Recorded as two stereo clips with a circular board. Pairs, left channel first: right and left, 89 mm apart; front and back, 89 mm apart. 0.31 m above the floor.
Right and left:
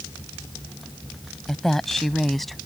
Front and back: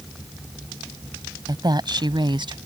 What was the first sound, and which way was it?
A woman speaking, 175° right.